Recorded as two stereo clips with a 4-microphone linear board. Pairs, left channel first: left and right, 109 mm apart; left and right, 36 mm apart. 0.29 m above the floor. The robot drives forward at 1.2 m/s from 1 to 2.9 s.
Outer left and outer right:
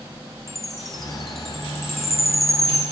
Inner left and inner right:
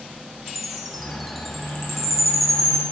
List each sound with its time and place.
0.5 s a chime: centre (ahead or behind), 1.7 m